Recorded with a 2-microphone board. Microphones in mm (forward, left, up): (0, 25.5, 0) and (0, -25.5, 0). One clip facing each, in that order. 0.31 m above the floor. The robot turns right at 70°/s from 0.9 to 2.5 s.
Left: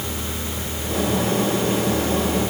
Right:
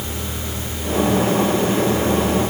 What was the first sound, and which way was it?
Only background noise.